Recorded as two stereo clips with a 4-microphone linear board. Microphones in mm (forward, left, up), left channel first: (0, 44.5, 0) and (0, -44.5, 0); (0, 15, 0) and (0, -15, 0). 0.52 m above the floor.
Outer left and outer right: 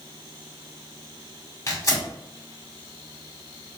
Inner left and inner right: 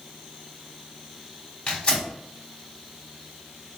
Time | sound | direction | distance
1.7 | tearing paper | 35° left (ahead or behind) | 1.9 m